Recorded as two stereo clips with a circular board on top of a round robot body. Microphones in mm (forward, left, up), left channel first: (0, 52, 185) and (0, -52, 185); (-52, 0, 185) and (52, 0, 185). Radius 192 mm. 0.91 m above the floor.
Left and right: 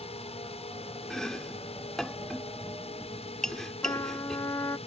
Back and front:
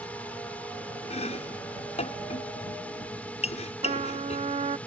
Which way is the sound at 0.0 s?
105° left.